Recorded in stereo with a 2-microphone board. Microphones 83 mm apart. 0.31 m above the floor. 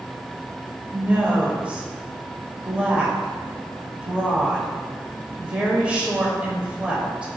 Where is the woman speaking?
15° right (ahead or behind), 1.0 m.